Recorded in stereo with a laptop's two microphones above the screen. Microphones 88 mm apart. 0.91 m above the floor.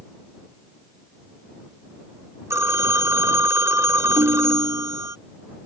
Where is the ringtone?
75° right (ahead or behind).